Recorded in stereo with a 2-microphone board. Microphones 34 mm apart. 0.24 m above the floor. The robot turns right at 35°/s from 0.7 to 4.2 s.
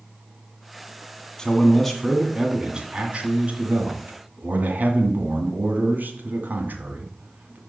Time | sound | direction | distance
1.4 | a man speaking | 155° left | 2.0 m